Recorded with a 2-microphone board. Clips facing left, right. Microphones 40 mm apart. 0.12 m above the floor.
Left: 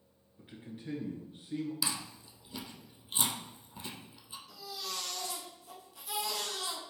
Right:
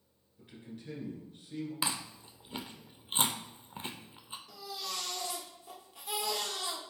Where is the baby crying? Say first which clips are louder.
Right 1 dB; 35° right (ahead or behind), 1.6 m.